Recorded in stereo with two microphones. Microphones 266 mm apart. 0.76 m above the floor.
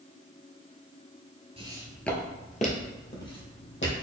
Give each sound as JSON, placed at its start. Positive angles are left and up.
{"t": 1.6, "sound": "footsteps", "side_deg": -20, "distance_m": 0.7}